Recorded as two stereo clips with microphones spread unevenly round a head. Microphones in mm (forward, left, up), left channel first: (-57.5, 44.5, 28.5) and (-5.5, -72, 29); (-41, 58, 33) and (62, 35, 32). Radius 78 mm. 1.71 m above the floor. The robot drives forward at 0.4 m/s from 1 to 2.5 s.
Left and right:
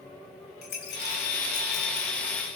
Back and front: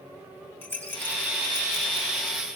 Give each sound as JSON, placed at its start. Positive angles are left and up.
{"t": 0.6, "sound": "a rattle", "azimuth_deg": 95, "distance_m": 3.0}